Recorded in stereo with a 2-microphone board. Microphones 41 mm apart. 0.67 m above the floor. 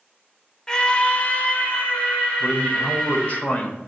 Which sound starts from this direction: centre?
A scream, at 0.7 s.